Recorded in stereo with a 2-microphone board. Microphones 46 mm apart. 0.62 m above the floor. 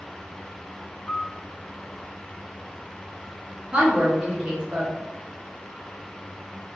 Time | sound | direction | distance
1.1 | a piano | 55° left (ahead or behind) | 1.3 m
3.7 | a woman speaking | 25° right (ahead or behind) | 1.1 m